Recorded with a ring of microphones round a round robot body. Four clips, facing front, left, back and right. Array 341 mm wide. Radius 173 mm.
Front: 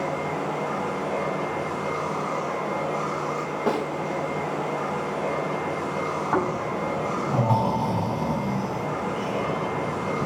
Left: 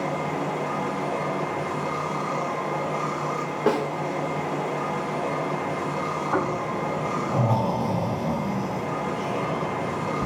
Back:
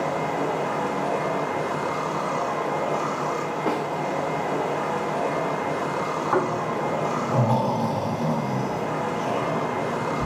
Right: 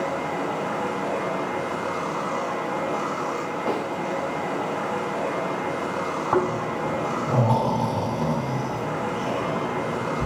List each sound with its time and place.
0.0 s running water: 165° right, 1.5 m
3.7 s a snare drum: 90° left, 1.0 m
6.3 s snoring: 115° right, 1.8 m